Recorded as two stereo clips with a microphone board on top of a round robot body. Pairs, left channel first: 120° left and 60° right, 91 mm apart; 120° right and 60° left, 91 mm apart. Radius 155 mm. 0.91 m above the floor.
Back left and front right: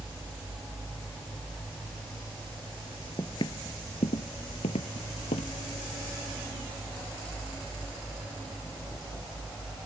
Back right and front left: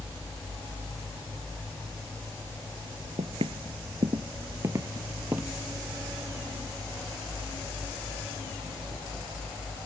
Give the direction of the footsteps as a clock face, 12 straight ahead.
10 o'clock.